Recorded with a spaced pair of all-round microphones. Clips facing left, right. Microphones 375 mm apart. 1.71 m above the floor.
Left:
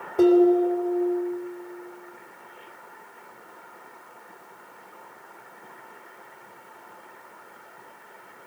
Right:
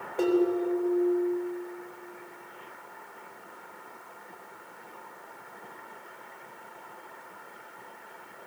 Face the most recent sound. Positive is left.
turn(degrees=55)  # may be behind; listen again after turning